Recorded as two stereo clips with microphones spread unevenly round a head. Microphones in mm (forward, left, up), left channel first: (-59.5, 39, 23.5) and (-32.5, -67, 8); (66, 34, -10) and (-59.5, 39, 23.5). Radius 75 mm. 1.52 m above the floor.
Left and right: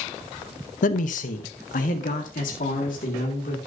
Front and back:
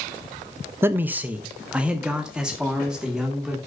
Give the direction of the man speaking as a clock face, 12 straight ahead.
9 o'clock.